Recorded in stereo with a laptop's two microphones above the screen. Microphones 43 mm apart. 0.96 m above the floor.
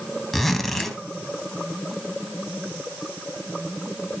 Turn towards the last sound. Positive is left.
turn(degrees=5)  # may be behind; listen again after turning